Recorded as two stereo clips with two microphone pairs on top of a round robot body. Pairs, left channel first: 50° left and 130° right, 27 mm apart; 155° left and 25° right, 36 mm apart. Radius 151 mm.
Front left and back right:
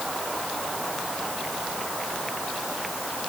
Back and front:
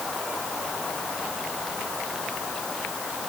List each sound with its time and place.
Only background noise.